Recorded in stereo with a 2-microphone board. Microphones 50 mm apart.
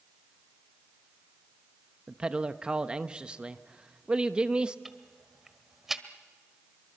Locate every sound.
2.1 s a man speaking: 20° right (ahead or behind), 0.9 m
4.8 s ticking: 10° right (ahead or behind), 1.3 m